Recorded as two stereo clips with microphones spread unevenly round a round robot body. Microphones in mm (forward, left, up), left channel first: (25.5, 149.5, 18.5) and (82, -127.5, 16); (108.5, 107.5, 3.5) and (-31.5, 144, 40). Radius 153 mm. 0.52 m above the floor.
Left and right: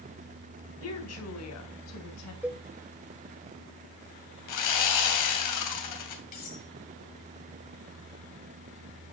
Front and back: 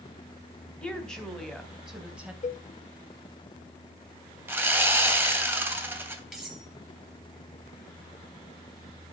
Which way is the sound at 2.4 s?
5° left.